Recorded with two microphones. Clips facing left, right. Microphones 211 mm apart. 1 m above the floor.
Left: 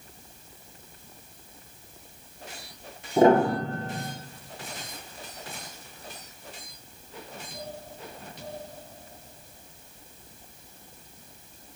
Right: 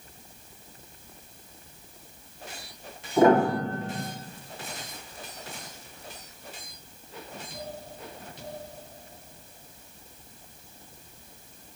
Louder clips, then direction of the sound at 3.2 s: Left 1 dB; 30° left (ahead or behind).